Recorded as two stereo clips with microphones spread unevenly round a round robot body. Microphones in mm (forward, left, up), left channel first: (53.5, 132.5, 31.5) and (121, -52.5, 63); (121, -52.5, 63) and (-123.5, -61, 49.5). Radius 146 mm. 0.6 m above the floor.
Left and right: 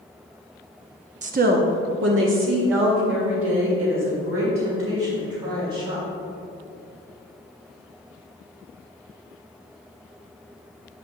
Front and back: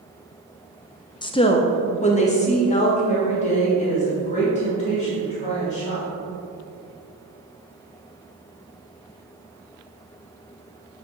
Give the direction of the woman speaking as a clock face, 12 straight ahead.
2 o'clock.